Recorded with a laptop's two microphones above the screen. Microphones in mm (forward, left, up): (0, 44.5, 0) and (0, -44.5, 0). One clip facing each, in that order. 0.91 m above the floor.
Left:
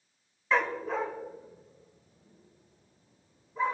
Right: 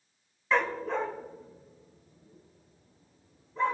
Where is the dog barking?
Centre (ahead or behind), 0.6 m; by 3.8 s 5° left (ahead or behind), 4 m.